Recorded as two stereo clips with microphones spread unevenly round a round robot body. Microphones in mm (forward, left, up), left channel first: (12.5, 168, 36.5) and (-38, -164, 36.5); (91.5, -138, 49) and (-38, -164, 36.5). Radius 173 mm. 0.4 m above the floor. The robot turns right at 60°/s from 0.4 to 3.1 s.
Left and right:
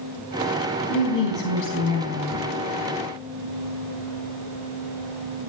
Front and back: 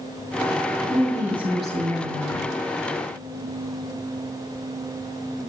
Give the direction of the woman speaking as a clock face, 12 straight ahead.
9 o'clock.